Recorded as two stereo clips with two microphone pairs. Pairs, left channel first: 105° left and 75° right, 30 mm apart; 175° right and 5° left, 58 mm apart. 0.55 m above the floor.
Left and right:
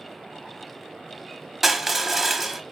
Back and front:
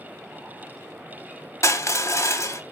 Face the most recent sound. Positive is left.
turn(degrees=-150)